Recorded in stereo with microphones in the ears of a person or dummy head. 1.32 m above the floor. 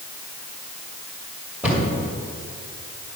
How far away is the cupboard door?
About 2 m.